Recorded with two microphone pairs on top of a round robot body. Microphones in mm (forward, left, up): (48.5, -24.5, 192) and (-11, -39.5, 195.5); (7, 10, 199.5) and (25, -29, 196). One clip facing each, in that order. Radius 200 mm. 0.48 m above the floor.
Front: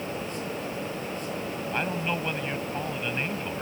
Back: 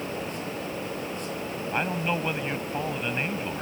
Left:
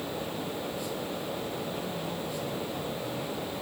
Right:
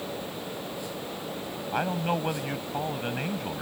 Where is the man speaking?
85° right.